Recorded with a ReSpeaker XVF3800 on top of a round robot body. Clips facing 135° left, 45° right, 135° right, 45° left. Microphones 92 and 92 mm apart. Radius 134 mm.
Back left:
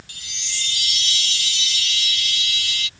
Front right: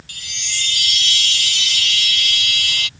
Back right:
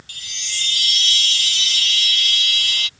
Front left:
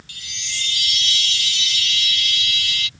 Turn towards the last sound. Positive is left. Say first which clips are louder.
# front right 7 dB, even
turn(degrees=-85)